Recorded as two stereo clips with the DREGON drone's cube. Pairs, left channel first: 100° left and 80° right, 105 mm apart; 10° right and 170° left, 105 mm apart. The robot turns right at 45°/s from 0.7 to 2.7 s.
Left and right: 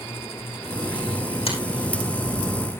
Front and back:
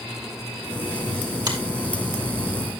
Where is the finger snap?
120° left, 5 m; by 1.6 s 125° left, 5 m.